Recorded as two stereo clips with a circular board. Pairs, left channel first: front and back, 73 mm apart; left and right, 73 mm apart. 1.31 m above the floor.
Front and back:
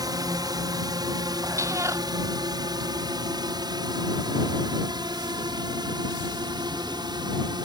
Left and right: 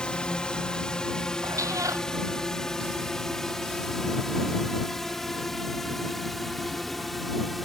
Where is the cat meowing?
135° right.